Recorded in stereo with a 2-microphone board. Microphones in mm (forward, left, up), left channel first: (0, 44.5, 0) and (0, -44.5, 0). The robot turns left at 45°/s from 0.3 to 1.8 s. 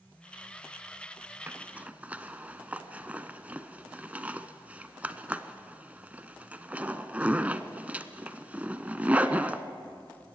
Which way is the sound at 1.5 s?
25° right (ahead or behind).